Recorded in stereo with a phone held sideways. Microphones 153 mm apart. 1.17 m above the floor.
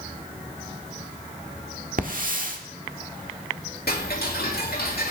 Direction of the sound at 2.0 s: 60° right (ahead or behind).